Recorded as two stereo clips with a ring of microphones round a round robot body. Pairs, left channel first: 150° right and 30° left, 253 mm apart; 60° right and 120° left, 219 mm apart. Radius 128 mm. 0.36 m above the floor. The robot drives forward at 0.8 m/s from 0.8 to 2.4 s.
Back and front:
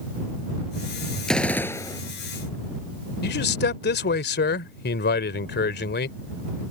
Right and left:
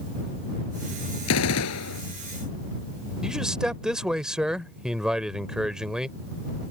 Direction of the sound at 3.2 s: 155° right.